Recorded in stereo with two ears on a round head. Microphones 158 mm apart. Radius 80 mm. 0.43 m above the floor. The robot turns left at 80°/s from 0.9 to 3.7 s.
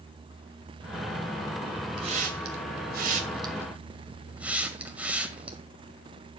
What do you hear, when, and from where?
2.0 s a hiss: 30° right (ahead or behind), 1.9 m; by 5.6 s 10° right (ahead or behind), 1.9 m